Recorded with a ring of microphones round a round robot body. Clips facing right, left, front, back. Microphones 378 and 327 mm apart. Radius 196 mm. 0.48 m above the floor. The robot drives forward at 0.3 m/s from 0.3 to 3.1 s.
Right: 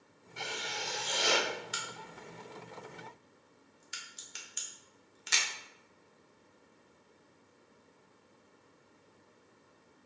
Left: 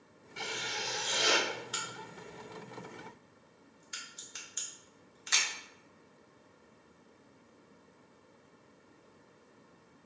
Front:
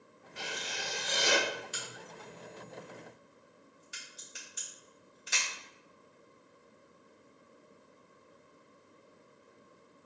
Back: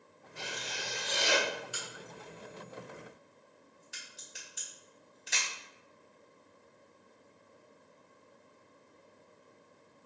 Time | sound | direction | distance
0.4 | writing | 25° left | 1.3 m
1.7 | a crack | 55° right | 1.1 m